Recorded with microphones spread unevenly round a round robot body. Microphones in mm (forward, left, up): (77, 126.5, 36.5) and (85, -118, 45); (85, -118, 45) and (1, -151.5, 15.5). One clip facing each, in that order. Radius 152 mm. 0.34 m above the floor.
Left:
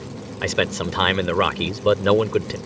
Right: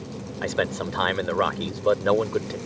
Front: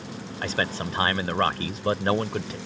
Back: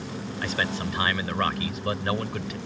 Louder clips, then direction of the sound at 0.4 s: Left 3 dB, front 1 dB; 80° left.